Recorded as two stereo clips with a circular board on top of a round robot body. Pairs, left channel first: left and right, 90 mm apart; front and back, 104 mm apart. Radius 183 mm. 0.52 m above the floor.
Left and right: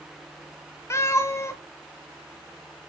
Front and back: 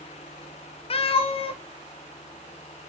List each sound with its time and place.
0.9 s a cat meowing: 30° left, 0.6 m